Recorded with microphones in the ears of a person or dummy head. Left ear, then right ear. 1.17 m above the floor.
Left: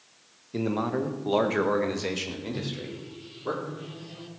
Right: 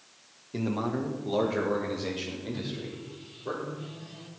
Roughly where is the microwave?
Centre.